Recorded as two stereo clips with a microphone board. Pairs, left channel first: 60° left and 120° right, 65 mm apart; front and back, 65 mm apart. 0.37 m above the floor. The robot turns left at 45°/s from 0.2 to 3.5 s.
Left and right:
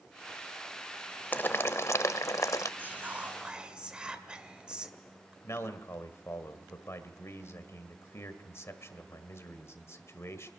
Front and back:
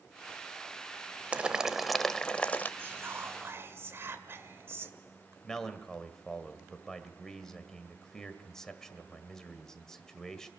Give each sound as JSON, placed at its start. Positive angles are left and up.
{"t": 1.3, "sound": "boiling", "azimuth_deg": 115, "distance_m": 0.7}
{"t": 2.8, "sound": "whispering", "azimuth_deg": -155, "distance_m": 1.5}
{"t": 5.4, "sound": "a man speaking", "azimuth_deg": 80, "distance_m": 1.7}